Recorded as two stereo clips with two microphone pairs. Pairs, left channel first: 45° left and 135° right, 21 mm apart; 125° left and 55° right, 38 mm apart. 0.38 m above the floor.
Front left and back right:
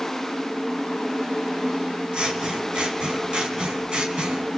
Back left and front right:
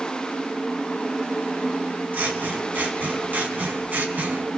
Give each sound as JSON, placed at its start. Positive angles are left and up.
{"t": 2.1, "sound": "scissors", "azimuth_deg": -90, "distance_m": 3.0}